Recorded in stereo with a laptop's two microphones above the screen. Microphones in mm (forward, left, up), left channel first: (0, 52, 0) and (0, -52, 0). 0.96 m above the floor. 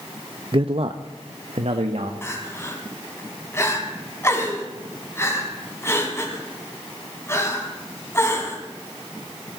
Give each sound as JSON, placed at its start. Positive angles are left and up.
{"t": 0.5, "sound": "a man speaking", "side_deg": -50, "distance_m": 0.5}
{"t": 2.2, "sound": "crying", "side_deg": 25, "distance_m": 2.5}